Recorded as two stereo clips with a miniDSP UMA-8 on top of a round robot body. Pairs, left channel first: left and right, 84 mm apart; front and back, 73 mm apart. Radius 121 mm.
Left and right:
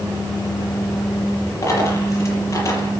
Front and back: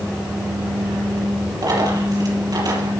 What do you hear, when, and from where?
1.6 s a dropped coin: 145° left, 6 m